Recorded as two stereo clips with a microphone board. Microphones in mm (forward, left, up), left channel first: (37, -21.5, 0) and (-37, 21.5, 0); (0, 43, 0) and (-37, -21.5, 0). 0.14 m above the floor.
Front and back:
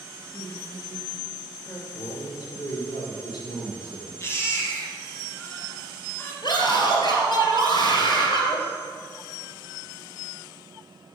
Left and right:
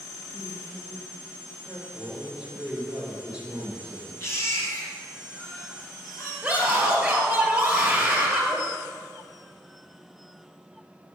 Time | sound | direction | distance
0.3 | a woman speaking | 45° left | 2 m
1.9 | a man speaking | 40° right | 2 m
4.2 | a baby crying | 20° left | 1.8 m
6.4 | a scream | 40° right | 2.5 m